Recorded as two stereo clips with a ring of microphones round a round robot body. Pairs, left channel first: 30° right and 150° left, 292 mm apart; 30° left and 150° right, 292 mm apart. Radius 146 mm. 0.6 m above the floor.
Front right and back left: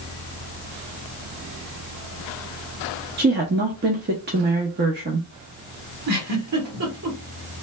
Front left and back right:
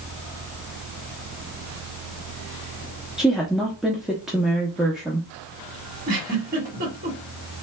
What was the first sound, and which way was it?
A woman speaking, 125° left.